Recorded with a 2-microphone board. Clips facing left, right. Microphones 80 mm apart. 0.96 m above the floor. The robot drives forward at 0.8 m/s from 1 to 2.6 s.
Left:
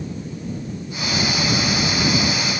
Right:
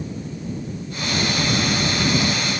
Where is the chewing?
No chewing in this recording.